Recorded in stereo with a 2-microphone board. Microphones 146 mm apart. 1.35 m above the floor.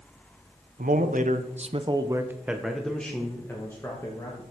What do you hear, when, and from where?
0.8 s a man speaking: 70° right (ahead or behind), 1.1 m; by 4.4 s 20° left (ahead or behind), 2.5 m